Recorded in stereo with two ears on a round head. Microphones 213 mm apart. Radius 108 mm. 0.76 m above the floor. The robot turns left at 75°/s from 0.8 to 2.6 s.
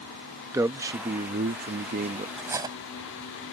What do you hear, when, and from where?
0.5 s a man speaking: 20° right; by 2.3 s 130° right
2.4 s cutlery clinking: centre (ahead or behind); by 2.8 s 15° right (ahead or behind)